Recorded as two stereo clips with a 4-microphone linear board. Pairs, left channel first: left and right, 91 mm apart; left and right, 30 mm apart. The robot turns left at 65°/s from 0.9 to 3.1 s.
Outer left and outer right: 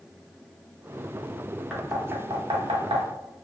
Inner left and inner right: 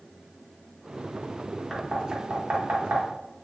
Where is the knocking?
5° right (ahead or behind), 0.7 m; by 3.0 s 85° right, 0.7 m.